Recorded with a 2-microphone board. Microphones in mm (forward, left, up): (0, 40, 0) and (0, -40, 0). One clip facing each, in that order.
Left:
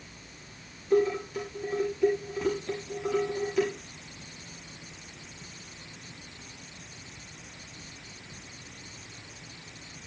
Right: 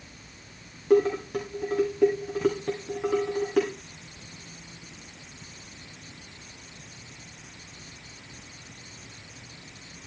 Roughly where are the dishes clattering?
Right.